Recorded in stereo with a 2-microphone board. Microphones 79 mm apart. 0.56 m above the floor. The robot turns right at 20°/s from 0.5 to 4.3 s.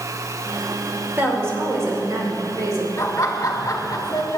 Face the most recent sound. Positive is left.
turn(degrees=45)  # may be behind; listen again after turning